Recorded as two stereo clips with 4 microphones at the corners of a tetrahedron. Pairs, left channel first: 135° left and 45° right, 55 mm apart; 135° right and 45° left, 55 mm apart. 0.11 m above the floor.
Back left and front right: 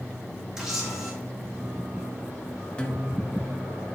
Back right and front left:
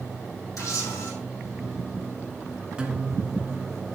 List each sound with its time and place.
0.6 s a camera shutter: 125° right, 4 m
2.8 s a guitar: 90° left, 1.4 m